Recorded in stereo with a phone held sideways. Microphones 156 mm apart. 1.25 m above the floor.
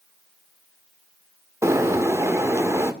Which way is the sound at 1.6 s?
20° right (ahead or behind).